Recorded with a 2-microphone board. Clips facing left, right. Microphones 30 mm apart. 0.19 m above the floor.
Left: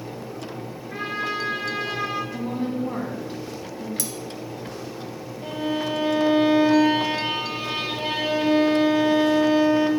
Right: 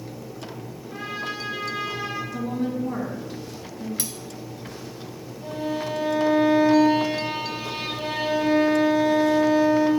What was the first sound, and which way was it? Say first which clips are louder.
A trumpet: left 4 dB; 60° left (ahead or behind).